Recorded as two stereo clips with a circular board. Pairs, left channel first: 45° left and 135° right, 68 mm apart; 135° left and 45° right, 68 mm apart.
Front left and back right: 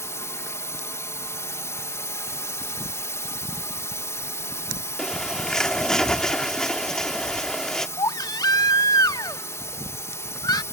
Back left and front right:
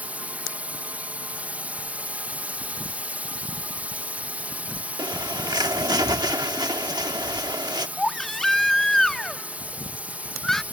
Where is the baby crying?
50° left.